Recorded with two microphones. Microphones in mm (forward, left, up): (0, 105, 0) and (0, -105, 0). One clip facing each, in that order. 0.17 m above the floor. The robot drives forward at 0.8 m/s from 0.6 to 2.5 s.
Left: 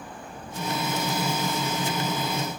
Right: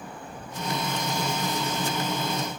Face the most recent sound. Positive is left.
turn(degrees=-45)  # may be behind; listen again after turning